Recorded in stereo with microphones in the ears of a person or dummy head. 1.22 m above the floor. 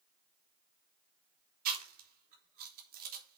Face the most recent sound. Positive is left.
turn(degrees=-50)  # may be behind; listen again after turning